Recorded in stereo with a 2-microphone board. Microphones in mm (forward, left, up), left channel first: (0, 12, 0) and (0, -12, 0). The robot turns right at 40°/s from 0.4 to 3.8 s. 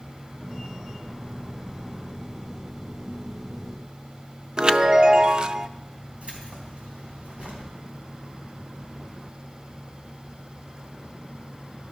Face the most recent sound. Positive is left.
turn(degrees=-70)  # may be behind; listen again after turning